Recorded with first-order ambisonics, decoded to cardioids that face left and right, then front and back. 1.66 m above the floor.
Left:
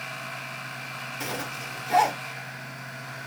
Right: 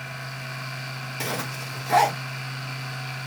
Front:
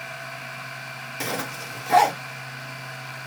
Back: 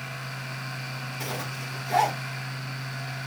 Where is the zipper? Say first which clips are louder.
Right 4 dB, front 6 dB; 45° right, 0.9 m.